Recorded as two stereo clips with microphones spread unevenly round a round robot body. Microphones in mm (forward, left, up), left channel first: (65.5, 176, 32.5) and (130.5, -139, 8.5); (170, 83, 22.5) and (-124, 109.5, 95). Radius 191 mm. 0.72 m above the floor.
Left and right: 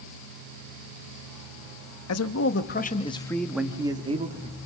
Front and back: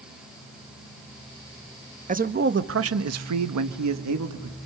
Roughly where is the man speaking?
Left.